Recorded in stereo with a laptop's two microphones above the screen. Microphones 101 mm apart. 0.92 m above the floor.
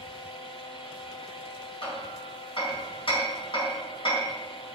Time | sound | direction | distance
0.0 | a fan | 65° left (ahead or behind) | 1.3 m
1.8 | hammering | 60° left (ahead or behind) | 4 m